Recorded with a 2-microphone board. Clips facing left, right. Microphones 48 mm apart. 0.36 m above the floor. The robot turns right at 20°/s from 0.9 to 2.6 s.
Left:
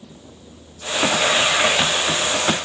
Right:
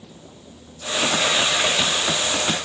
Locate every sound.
Only background noise.